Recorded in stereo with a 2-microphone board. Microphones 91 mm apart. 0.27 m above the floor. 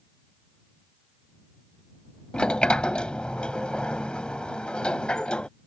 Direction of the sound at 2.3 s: 10° left (ahead or behind).